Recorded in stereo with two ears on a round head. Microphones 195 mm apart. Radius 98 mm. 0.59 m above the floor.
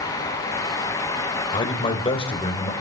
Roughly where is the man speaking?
Left.